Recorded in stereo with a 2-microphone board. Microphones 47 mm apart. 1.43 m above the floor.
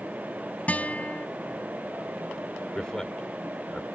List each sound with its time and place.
0.7 s a guitar: 35° left (ahead or behind)
2.8 s a man speaking: 15° left (ahead or behind)